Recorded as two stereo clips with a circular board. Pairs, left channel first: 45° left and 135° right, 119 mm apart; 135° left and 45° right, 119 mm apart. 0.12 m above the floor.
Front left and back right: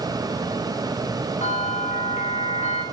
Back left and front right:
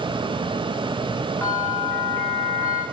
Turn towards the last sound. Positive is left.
turn(degrees=65)